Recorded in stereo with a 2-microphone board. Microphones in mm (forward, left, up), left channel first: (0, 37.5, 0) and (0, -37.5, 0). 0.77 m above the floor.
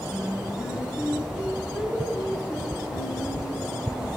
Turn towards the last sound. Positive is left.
turn(degrees=-10)  # may be behind; listen again after turning